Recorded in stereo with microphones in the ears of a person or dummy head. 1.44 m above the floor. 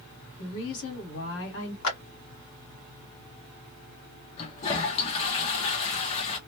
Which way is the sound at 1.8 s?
85° left.